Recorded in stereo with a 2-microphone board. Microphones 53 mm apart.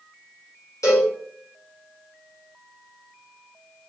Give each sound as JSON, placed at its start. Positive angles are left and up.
{"t": 0.8, "sound": "a cowbell", "side_deg": 85, "distance_m": 1.3}